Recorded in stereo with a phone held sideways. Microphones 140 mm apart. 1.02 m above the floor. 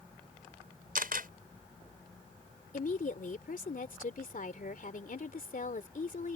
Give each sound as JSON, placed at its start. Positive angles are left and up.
{"t": 0.9, "sound": "a camera shutter", "side_deg": -80}
{"t": 2.7, "sound": "a woman speaking", "side_deg": 65}